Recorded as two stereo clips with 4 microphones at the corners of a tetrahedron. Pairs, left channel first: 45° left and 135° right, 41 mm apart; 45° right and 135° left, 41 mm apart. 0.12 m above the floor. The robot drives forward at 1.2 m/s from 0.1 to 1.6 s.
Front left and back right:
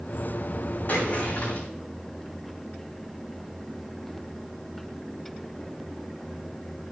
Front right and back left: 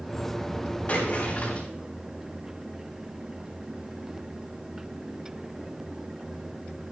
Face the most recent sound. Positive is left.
turn(degrees=10)